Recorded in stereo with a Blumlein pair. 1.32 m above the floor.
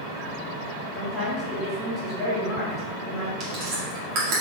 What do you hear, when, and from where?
0.9 s a woman speaking: 20° left, 1.6 m
3.4 s chewing: 40° right, 1.7 m